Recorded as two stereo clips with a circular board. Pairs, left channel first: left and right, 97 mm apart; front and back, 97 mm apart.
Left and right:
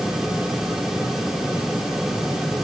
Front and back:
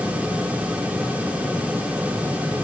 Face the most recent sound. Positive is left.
No sound to turn to.